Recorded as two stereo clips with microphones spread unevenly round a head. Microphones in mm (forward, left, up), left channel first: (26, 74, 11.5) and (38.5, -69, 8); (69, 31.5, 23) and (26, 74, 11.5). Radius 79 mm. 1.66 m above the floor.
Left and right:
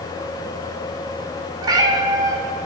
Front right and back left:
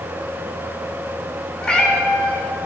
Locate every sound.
1.6 s a cat meowing: 65° right, 1.4 m